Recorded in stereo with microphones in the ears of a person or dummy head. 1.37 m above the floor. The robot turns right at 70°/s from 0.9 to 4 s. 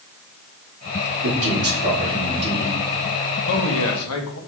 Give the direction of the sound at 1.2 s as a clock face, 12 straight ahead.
4 o'clock.